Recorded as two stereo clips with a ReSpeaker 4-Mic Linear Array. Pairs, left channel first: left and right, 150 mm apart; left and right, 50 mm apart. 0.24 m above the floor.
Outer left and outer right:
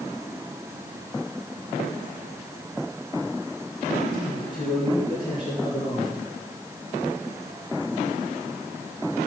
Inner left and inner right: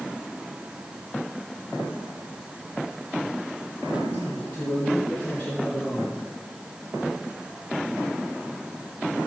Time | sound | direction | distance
4.1 | a man speaking | 30° left (ahead or behind) | 4 m